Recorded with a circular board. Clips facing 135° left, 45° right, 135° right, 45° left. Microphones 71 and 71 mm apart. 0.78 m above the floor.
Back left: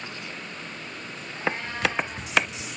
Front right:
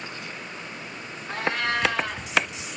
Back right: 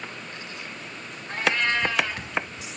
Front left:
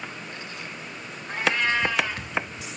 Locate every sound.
1.3 s a cat meowing: 35° right, 4 m